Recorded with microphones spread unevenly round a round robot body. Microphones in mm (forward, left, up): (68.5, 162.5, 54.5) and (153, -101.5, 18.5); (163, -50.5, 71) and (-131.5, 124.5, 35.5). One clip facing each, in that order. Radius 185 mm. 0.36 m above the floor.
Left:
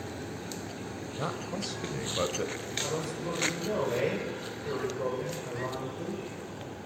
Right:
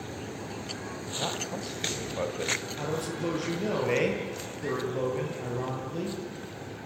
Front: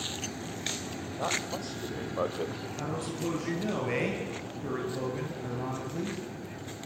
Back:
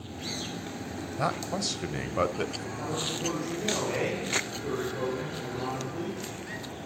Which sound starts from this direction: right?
A man speaking, at 2.8 s.